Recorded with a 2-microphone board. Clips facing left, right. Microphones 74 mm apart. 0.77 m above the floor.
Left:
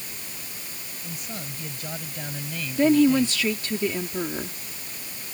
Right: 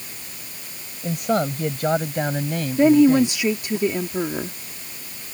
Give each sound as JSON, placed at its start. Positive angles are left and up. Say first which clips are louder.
{"t": 1.0, "sound": "a man speaking", "louder": "right 17 dB", "side_deg": -75}
{"t": 2.8, "sound": "a woman speaking", "louder": "right 4 dB", "side_deg": -20}